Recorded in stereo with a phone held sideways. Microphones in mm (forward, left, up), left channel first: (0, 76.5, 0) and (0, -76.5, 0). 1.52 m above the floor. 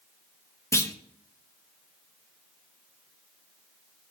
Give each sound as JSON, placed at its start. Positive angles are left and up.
{"t": 0.7, "sound": "a clunk", "side_deg": 20, "distance_m": 0.9}